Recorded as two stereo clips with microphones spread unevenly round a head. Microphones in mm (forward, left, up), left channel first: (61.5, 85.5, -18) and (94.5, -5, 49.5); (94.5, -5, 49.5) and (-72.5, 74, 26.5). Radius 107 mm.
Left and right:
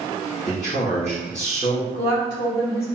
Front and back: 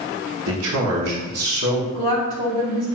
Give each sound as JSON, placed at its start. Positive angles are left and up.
{"t": 0.5, "sound": "a man speaking", "azimuth_deg": 175, "distance_m": 0.9}
{"t": 1.9, "sound": "a woman speaking", "azimuth_deg": 110, "distance_m": 1.1}